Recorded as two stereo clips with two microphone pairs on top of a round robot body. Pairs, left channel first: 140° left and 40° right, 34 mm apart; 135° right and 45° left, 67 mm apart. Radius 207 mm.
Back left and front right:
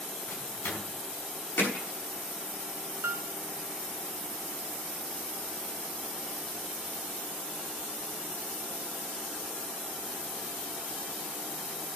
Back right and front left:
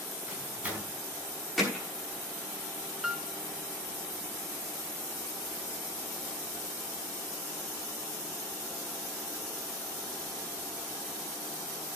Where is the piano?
40° right, 0.5 m.